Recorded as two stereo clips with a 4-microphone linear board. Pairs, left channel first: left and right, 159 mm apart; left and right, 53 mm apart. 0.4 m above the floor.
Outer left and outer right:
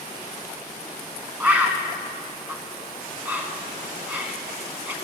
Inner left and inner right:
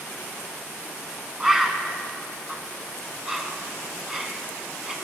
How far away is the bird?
About 1.2 m.